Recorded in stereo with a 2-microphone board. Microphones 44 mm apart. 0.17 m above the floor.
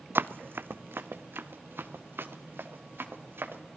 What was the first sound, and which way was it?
Running footsteps, 55° right (ahead or behind).